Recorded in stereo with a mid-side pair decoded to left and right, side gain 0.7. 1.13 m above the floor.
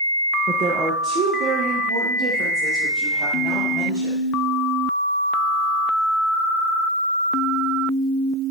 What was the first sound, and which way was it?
A woman speaking, 35° right.